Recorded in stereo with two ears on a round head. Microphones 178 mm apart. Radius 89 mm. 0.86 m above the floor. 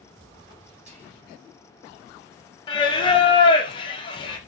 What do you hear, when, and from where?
0.9 s whispering: 35° right (ahead or behind), 1.2 m
2.7 s singing: 25° left (ahead or behind), 0.5 m